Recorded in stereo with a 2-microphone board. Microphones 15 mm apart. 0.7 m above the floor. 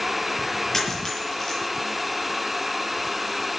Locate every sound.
0.7 s a dropped coin: 25° left (ahead or behind), 8 m